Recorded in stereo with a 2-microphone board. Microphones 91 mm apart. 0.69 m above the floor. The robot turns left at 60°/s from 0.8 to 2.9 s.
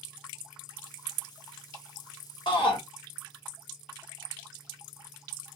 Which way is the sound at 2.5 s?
65° left (ahead or behind).